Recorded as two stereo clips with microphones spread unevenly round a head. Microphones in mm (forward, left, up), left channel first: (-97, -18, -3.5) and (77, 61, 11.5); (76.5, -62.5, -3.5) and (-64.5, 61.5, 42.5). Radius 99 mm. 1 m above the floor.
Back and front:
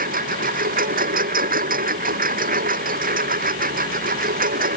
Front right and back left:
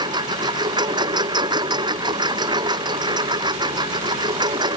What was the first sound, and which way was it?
A lawn mower, 70° left.